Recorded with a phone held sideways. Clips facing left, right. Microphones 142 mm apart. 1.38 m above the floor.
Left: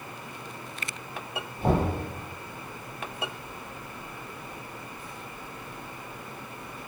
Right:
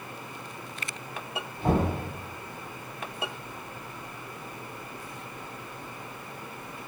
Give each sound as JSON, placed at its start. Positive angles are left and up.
{"t": 1.6, "sound": "knocking", "side_deg": 30, "distance_m": 1.8}